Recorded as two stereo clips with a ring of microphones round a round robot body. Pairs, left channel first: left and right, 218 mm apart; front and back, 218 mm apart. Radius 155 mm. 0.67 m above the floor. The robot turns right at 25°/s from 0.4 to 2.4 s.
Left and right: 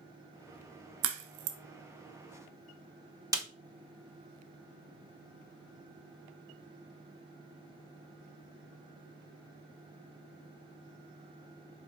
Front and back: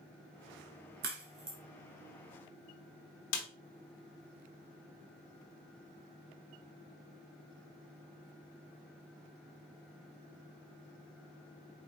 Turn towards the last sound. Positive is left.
turn(degrees=-20)